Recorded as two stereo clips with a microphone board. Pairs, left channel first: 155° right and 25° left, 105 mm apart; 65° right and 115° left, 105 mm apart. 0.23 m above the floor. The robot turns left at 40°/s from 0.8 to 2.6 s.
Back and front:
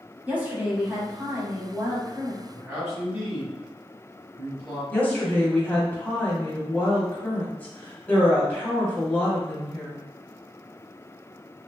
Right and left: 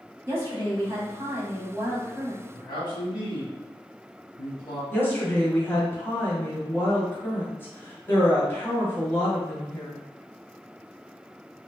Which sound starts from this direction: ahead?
A man speaking, at 2.5 s.